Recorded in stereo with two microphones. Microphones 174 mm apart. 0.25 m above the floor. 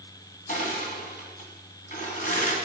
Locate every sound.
0.5 s crushing: 50° left (ahead or behind), 2 m